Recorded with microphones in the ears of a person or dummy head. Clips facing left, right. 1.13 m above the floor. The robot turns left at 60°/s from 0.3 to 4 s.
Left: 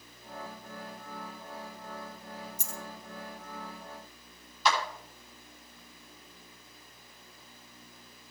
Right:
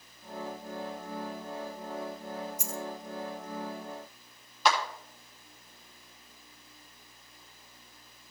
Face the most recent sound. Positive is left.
turn(degrees=-50)  # may be behind; listen again after turning